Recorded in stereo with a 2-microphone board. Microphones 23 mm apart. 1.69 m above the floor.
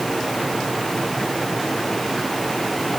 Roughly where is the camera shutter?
No camera shutter in this recording.